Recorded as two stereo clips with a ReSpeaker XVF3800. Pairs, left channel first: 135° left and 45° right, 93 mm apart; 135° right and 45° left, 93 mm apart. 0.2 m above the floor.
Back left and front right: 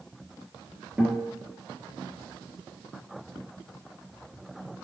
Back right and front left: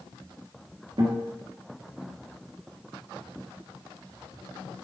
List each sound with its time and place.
1.0 s a guitar: 40° left, 3 m